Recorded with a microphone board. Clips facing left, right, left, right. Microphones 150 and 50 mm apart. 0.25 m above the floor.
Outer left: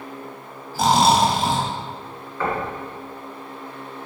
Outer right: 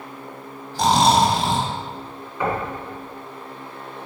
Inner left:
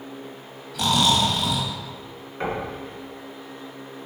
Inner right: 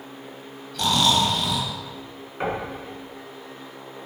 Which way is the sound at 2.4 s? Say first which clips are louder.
Outer right 1 dB, even; 15° right (ahead or behind).